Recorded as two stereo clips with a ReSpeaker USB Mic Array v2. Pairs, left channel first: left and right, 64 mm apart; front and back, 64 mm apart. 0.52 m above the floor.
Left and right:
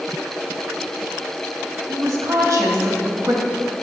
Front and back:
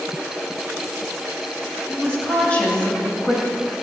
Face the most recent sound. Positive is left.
turn(degrees=-70)